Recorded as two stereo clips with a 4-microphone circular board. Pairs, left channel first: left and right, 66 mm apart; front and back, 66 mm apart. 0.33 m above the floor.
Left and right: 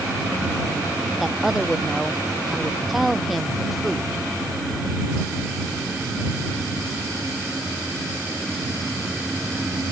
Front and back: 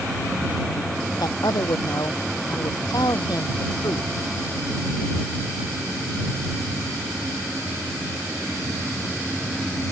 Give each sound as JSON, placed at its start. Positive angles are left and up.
{"t": 1.2, "sound": "a woman speaking", "azimuth_deg": -5}